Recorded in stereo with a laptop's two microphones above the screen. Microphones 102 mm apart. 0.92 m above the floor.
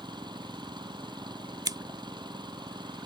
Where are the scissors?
40° right (ahead or behind).